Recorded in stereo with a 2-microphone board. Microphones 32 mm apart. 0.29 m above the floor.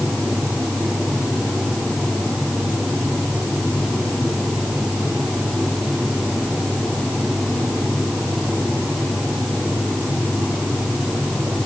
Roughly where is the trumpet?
No trumpet in this recording.